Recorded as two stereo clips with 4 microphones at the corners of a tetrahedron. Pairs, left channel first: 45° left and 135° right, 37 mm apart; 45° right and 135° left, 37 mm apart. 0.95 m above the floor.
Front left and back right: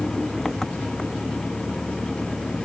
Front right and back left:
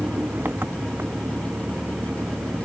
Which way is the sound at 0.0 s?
130° left.